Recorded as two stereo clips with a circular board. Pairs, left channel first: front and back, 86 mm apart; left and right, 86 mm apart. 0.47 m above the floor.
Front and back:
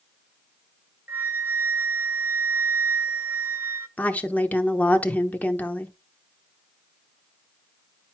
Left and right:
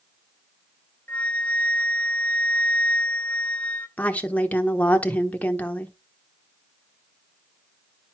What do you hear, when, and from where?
1.1 s a flute: 140° left, 0.7 m
4.0 s a woman speaking: 45° left, 0.8 m